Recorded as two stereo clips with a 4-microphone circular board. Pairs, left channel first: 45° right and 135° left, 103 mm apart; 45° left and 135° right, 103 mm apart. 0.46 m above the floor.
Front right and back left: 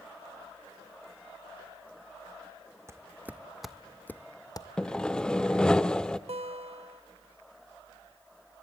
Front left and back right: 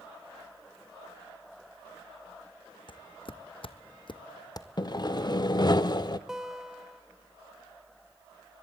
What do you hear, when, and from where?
2.9 s footsteps: 75° left, 1.1 m; by 4.7 s 5° right, 0.9 m
4.8 s sawing: 35° left, 0.5 m
6.3 s a guitar: 140° left, 0.8 m